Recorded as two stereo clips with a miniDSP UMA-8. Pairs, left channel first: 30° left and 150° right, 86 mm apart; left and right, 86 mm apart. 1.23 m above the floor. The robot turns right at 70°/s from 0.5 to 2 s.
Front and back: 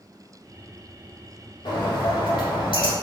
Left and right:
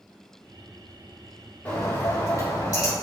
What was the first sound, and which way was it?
A bird, 20° left.